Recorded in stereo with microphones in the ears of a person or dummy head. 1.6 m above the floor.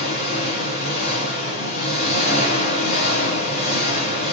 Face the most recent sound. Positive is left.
turn(degrees=30)  # may be behind; listen again after turning